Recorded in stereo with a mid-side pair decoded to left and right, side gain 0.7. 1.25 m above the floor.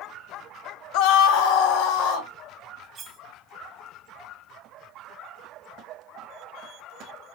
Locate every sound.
0.9 s a scream: 65° left, 0.6 m; by 2.3 s 70° left, 1.4 m
3.0 s cutlery clinking: 30° right, 1.3 m